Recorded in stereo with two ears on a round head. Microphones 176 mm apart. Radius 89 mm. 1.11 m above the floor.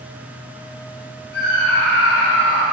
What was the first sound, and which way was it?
A scream, 60° left (ahead or behind).